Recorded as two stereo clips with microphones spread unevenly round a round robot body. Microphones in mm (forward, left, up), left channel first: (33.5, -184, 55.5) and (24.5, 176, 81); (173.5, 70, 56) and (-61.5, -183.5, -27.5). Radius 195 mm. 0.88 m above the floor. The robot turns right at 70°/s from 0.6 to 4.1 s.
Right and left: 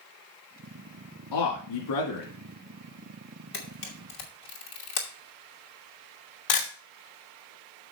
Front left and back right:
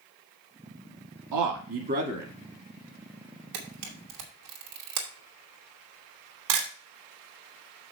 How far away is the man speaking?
About 1.6 m.